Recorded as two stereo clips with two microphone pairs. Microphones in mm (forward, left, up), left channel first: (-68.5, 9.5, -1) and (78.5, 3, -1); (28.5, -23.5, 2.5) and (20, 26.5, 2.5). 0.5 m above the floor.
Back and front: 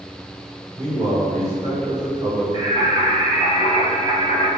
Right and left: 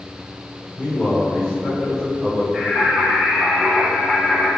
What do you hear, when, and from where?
0.8 s a man speaking: 30° right, 1.7 m; by 2.4 s 40° left, 1.4 m
2.5 s singing: 5° right, 1.5 m